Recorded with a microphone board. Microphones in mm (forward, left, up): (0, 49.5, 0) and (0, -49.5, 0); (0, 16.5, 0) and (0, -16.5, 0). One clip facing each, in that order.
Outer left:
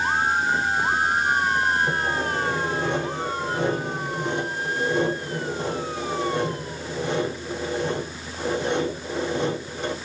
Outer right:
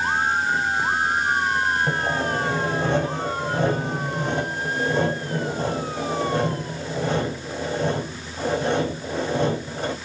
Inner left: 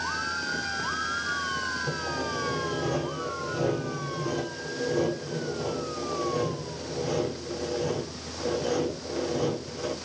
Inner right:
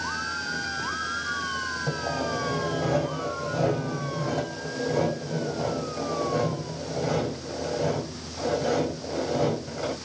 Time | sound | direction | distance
1.9 | sawing | 40° right (ahead or behind) | 3.5 m